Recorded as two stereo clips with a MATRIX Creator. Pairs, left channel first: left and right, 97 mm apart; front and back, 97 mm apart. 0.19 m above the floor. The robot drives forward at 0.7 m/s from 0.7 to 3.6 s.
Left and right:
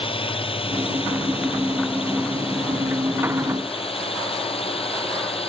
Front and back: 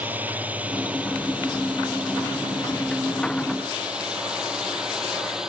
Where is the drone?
110° left; by 5.5 s 95° left.